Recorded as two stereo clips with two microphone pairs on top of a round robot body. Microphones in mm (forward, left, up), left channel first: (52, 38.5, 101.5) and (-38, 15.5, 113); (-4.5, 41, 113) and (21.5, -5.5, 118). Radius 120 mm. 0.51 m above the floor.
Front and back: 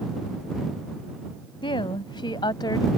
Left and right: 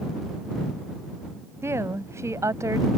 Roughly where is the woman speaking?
Ahead.